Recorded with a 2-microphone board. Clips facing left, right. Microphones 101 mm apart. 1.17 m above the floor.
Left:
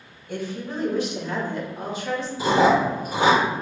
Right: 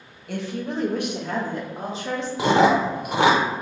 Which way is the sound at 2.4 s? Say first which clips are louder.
Right 1 dB; 70° right (ahead or behind).